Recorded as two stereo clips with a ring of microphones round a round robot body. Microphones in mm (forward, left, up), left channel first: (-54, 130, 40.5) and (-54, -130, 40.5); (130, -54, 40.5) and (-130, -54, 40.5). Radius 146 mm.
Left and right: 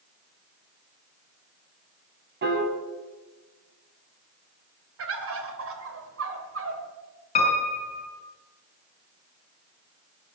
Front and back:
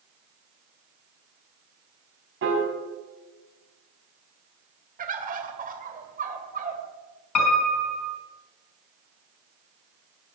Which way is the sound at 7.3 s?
20° left.